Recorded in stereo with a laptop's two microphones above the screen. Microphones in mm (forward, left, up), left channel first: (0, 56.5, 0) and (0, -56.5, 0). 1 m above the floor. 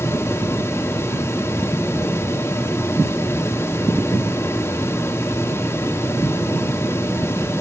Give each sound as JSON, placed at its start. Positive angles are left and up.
{"t": 0.0, "sound": "a fan", "side_deg": 25, "distance_m": 1.7}